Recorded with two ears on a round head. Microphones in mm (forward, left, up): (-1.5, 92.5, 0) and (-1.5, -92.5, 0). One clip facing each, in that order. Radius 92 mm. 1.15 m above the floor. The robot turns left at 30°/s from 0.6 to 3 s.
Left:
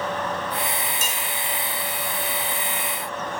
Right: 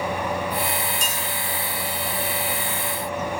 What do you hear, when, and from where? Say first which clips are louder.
1.0 s dishes clattering: right 1 dB; 5° left (ahead or behind), 3.5 m; by 1.1 s 10° left (ahead or behind), 3.5 m